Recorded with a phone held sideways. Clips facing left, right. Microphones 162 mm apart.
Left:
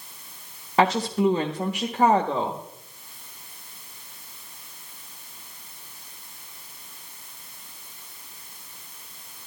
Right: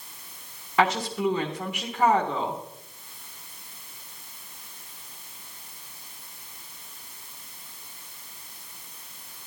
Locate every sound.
0.8 s a woman speaking: 35° left (ahead or behind), 0.8 m